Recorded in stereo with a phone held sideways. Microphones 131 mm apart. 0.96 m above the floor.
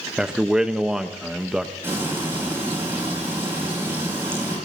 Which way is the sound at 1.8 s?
15° right (ahead or behind).